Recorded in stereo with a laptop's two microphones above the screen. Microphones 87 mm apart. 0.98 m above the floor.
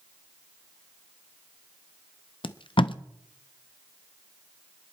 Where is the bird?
No bird in this recording.